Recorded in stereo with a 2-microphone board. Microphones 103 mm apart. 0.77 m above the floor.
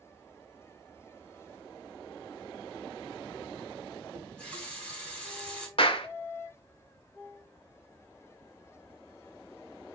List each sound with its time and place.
4.1 s a running tap: 10° left (ahead or behind), 4 m
5.8 s a clap: 60° left (ahead or behind), 1.3 m